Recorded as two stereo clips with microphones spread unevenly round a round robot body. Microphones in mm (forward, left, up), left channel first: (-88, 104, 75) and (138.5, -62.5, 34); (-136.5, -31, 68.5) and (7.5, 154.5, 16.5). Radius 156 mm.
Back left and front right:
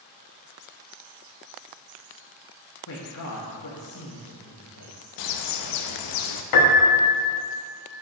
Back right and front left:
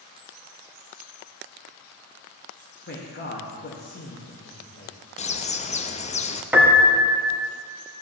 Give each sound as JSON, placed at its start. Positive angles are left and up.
{"t": 2.9, "sound": "a man speaking", "azimuth_deg": -175, "distance_m": 1.1}
{"t": 5.2, "sound": "a bird", "azimuth_deg": 165, "distance_m": 0.5}
{"t": 6.5, "sound": "a piano", "azimuth_deg": 135, "distance_m": 1.2}